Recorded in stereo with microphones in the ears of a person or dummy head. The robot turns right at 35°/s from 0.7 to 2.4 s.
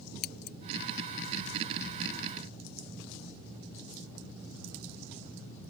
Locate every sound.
0.2 s scissors: 50° left (ahead or behind)